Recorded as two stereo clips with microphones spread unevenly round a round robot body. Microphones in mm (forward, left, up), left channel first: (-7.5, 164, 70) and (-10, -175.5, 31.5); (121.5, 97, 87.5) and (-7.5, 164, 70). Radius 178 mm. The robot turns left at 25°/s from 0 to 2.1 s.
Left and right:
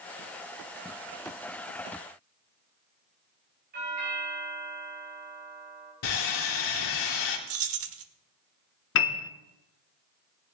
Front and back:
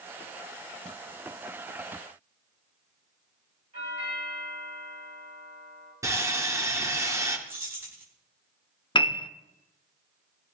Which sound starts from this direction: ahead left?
A piano, at 8.9 s.